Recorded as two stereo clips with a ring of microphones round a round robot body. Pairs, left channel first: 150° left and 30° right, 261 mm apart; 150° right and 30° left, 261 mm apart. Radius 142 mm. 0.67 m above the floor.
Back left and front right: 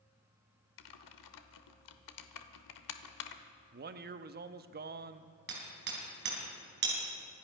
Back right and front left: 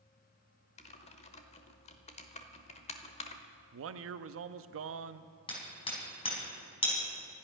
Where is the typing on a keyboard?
145° left, 1.0 m.